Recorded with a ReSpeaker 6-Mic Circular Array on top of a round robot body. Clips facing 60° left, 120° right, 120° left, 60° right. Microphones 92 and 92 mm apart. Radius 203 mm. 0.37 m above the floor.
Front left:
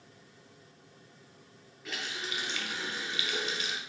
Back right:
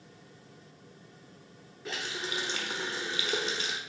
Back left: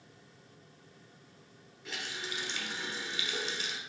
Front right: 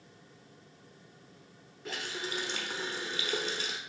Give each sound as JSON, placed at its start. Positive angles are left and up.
{"t": 1.9, "sound": "a running tap", "azimuth_deg": -75, "distance_m": 1.0}